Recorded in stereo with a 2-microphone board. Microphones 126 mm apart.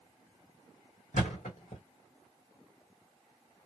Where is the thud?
85° left, 1.4 m.